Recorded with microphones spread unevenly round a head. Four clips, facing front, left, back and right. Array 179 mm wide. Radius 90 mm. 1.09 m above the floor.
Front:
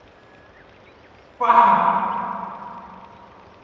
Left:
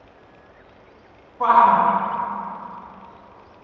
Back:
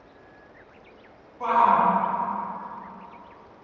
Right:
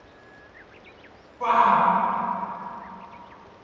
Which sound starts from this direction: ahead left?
A shout, at 1.4 s.